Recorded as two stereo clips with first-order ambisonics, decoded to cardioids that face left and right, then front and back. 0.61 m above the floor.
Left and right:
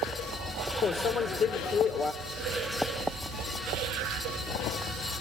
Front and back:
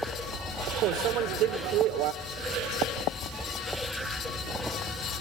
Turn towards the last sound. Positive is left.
turn(degrees=150)